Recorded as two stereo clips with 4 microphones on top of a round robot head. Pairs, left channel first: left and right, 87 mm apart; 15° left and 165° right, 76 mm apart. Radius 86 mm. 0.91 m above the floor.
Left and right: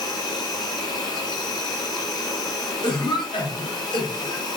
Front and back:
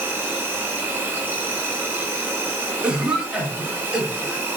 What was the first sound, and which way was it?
An insect, 130° left.